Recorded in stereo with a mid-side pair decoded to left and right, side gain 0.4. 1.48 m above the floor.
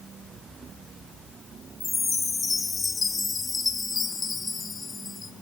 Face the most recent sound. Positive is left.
turn(degrees=30)